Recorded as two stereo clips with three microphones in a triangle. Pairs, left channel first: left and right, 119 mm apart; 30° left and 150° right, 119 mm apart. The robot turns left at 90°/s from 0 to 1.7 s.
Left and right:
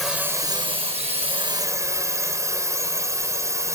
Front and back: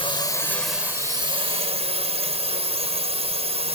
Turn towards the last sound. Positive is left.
turn(degrees=-150)